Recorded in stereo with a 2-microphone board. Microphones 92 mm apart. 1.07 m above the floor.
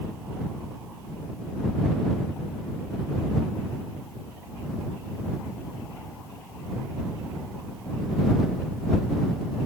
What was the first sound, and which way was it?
Only background noise.